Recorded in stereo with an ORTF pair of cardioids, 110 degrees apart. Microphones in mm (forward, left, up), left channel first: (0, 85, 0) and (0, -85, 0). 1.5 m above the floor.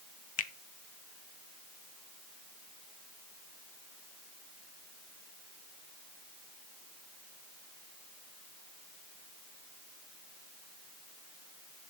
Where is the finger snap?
50° left, 0.9 m.